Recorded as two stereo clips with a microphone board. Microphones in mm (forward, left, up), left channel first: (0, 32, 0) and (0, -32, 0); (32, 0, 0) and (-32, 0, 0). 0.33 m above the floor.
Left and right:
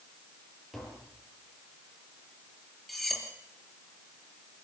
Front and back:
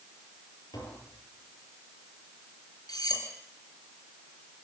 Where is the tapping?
5° right, 7.5 m.